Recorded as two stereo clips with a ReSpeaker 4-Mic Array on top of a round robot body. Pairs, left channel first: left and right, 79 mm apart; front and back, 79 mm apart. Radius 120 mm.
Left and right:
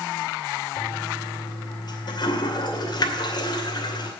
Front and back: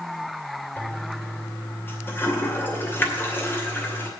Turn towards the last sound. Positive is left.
turn(degrees=65)